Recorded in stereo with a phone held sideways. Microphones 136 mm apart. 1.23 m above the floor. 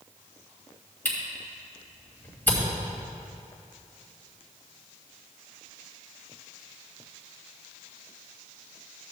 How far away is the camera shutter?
About 2.5 m.